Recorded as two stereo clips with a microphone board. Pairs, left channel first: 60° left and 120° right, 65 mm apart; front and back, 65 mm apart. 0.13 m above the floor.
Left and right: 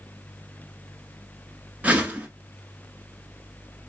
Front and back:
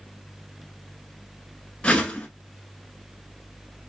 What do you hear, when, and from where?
1.8 s a whoosh: 65° right, 0.8 m